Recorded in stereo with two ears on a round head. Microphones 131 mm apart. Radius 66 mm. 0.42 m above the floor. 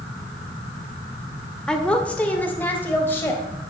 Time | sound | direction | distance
1.7 | a woman speaking | 5° left (ahead or behind) | 1.5 m